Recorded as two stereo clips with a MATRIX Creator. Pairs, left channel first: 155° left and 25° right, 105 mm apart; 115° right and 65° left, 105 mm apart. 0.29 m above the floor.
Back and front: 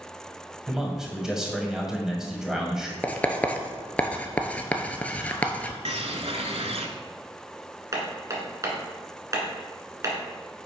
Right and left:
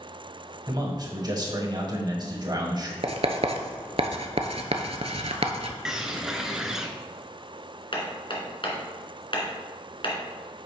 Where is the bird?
15° right, 0.8 m.